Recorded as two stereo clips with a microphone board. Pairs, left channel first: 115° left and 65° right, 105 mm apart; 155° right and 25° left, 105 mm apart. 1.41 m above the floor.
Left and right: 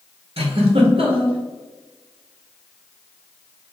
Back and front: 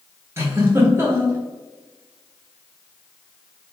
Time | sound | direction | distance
0.4 | a giggle | 45° right | 0.8 m